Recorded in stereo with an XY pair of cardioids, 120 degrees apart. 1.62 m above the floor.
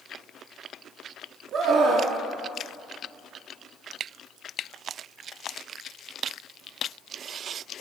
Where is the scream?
60° right, 3 m.